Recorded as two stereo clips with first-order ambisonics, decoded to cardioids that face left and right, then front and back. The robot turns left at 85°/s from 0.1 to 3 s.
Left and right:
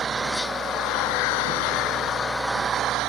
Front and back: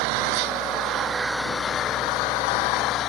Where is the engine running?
160° right; by 3.1 s 45° right.